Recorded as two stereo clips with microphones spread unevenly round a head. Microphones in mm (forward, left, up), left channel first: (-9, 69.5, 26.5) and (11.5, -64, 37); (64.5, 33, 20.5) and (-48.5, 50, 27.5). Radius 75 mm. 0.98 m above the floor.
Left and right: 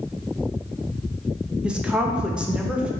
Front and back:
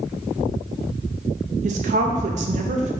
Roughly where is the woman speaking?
Behind.